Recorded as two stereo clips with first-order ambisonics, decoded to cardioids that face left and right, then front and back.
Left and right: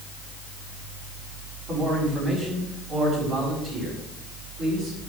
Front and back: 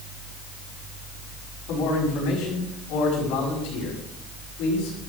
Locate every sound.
1.7 s a man speaking: 20° right, 5.5 m